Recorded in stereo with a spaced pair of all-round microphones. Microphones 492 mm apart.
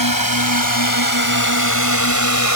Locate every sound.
0.0 s a drone: 45° left (ahead or behind); by 2.6 s 35° left (ahead or behind)